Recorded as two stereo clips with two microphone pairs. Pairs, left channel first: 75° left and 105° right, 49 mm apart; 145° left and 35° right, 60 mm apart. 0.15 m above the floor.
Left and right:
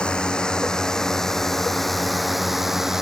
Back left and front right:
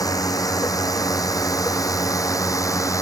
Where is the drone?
145° left; by 3.0 s 170° left.